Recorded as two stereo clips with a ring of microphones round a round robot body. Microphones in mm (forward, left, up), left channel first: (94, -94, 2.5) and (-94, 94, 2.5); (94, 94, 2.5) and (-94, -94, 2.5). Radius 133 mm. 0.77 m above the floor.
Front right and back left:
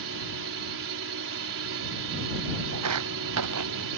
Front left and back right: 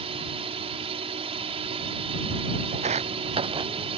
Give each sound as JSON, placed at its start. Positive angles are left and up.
{"t": 0.0, "sound": "a drone", "azimuth_deg": 160}
{"t": 2.7, "sound": "footsteps", "azimuth_deg": 160}